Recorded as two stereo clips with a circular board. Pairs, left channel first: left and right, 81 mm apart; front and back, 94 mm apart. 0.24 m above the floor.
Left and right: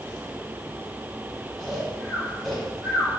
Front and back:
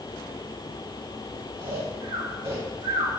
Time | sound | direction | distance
1.6 | snoring | 175° left | 3.5 m